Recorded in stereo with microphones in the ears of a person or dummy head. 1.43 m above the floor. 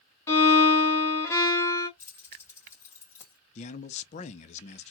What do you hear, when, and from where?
0.3 s a violin: 15° left (ahead or behind), 1.1 m
2.0 s keys jangling: 10° left (ahead or behind), 1.7 m
3.5 s a man speaking: 40° left (ahead or behind), 0.5 m